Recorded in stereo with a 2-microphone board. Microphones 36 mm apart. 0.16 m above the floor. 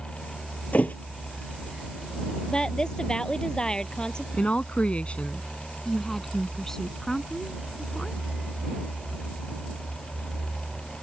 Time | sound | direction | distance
0.7 | a thud | 50° left (ahead or behind) | ?
2.5 | a woman speaking | 25° left (ahead or behind) | ?
4.3 | a woman speaking | 35° left (ahead or behind) | ?
5.8 | a woman speaking | 10° left (ahead or behind) | ?